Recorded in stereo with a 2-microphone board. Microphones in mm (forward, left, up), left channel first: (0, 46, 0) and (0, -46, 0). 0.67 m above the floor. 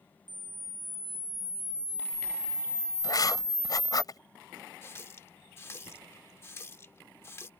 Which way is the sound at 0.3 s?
60° right (ahead or behind).